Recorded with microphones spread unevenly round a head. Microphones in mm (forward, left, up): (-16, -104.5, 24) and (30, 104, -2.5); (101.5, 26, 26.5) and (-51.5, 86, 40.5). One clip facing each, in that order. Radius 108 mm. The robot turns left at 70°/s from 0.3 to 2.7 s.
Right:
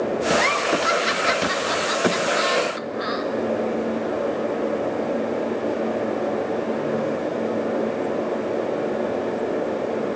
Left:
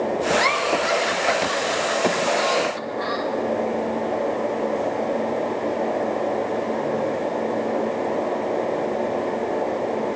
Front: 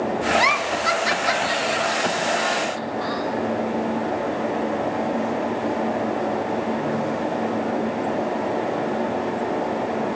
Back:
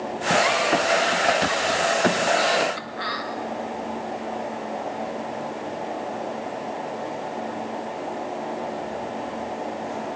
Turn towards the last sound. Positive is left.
turn(degrees=-170)